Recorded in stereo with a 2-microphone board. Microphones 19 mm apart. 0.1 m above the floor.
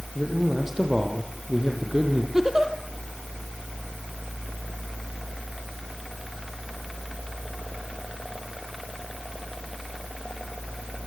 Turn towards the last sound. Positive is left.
turn(degrees=-25)  # may be behind; listen again after turning